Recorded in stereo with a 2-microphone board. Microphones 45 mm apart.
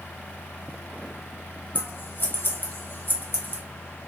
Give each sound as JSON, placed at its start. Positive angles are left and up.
{"t": 1.8, "sound": "scissors", "side_deg": 50, "distance_m": 0.7}